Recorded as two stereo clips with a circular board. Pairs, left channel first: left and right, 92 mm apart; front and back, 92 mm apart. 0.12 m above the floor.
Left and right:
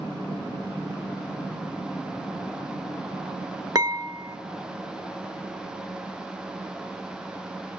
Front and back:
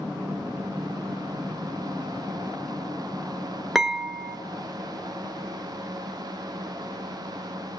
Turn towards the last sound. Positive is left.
turn(degrees=-95)